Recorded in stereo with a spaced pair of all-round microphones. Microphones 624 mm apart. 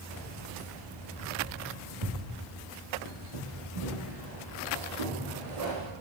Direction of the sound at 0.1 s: 75° right (ahead or behind).